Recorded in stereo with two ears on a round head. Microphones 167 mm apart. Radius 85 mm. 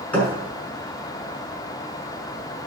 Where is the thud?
10° left (ahead or behind), 5.5 m.